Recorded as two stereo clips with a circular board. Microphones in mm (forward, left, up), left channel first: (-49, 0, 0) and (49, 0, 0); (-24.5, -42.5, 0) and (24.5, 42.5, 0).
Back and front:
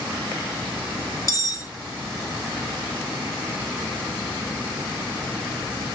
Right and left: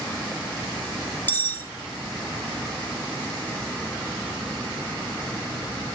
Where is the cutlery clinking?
170° right, 0.7 m.